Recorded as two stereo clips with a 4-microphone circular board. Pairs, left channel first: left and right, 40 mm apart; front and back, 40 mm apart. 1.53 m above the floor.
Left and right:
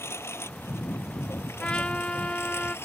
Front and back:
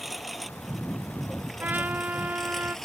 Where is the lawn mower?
90° left; by 2.9 s 80° left.